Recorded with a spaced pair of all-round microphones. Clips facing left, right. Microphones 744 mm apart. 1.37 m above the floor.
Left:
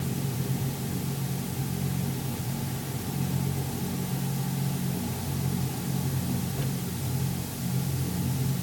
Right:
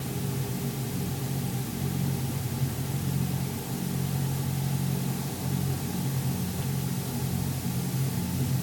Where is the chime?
I don't hear a chime.